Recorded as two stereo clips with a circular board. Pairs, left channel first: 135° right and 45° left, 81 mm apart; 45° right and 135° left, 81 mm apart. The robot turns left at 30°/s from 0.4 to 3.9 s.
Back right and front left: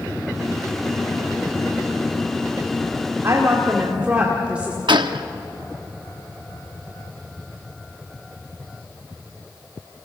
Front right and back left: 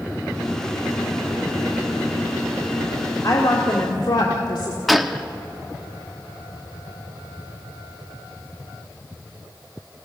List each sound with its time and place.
3.2 s a woman speaking: 10° right, 2 m; by 4.8 s 30° right, 2 m
4.9 s a gunshot: 45° left, 0.8 m